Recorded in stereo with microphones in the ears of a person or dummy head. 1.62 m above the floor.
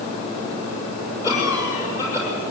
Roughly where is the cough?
Centre.